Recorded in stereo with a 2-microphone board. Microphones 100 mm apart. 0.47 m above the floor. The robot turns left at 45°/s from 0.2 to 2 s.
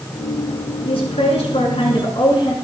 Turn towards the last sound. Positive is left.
turn(degrees=55)